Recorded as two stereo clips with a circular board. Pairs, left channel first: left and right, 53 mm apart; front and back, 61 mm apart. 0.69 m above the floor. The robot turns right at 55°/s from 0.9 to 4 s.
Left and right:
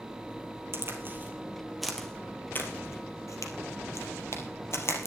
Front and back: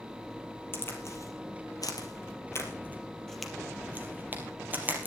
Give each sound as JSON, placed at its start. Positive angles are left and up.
{"t": 0.7, "sound": "a crack", "azimuth_deg": -50, "distance_m": 2.5}